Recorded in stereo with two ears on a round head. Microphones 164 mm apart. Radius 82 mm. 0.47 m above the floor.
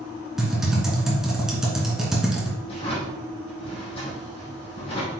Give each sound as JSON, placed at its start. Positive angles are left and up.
{"t": 0.4, "sound": "typing on a keyboard", "side_deg": -5, "distance_m": 2.5}
{"t": 2.7, "sound": "a drawer", "side_deg": 35, "distance_m": 4.5}